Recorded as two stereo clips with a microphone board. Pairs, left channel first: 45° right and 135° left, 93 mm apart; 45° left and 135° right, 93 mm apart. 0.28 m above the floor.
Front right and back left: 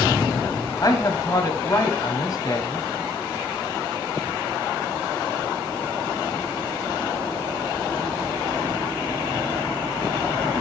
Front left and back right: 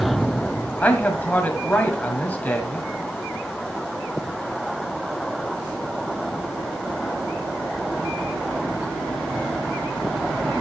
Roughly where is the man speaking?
Ahead.